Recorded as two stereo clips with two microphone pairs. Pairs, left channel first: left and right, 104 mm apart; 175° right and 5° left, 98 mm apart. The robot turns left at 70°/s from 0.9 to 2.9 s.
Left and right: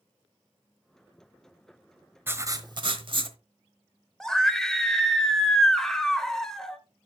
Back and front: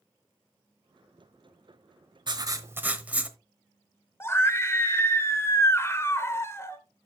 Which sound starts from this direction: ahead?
Writing, at 2.3 s.